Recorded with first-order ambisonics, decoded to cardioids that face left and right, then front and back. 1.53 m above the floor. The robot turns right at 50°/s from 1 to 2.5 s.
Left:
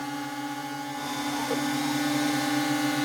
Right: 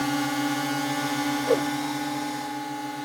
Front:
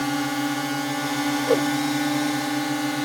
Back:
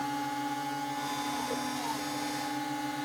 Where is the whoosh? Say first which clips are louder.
Right 8 dB, front 13 dB; 40° right; by 1.7 s 25° right.